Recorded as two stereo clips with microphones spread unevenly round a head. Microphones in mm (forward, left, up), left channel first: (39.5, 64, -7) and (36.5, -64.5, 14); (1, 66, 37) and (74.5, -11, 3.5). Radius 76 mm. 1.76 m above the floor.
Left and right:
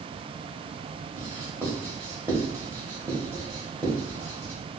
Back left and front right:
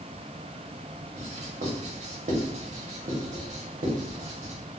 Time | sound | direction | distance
1.2 | writing | 20° right | 1.1 m